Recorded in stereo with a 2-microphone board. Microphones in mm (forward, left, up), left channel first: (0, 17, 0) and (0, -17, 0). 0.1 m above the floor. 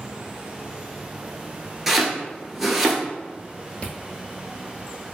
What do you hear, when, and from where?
1.9 s chopping: 5° right (ahead or behind), 0.8 m
3.8 s chewing: 40° left (ahead or behind), 0.6 m